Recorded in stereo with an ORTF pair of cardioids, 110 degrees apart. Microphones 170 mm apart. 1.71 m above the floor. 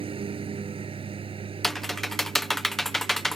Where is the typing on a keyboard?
Straight ahead.